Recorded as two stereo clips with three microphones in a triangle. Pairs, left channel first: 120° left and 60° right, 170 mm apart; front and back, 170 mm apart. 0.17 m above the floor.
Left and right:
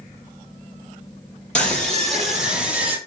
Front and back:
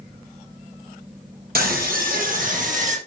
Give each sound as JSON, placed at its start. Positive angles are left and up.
{"t": 1.6, "sound": "a scream", "azimuth_deg": -155, "distance_m": 4.5}